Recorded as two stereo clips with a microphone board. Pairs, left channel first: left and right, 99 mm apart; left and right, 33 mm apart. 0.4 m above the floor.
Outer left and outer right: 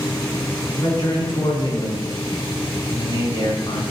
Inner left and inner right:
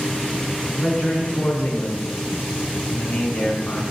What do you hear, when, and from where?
0.8 s a man speaking: 45° left (ahead or behind), 4.5 m